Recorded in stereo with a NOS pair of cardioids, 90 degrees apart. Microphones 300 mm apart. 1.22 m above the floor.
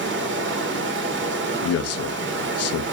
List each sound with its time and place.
0.0 s running water: 40° right, 1.0 m
1.6 s a man speaking: 55° left, 0.6 m